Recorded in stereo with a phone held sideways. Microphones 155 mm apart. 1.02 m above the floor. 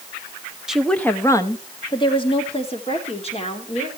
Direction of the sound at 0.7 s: 5° right (ahead or behind).